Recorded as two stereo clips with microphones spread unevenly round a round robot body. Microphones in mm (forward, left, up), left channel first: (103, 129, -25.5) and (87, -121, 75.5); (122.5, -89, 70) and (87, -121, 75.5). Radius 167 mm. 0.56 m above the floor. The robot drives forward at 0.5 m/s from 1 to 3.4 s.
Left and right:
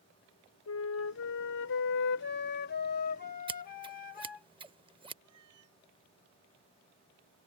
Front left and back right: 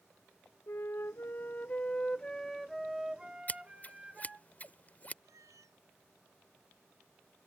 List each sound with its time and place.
0.7 s a flute: 85° left; by 4.5 s 140° left
3.5 s scissors: 20° right
5.2 s a cat meowing: 140° right